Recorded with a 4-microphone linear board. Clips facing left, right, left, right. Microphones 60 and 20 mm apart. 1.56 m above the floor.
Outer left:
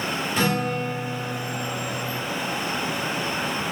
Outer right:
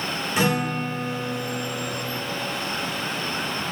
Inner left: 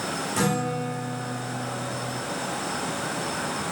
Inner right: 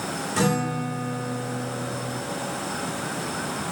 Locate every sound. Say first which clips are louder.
0.4 s a guitar: outer right 2 dB, inner right 2 dB; 15° right (ahead or behind), 3.5 m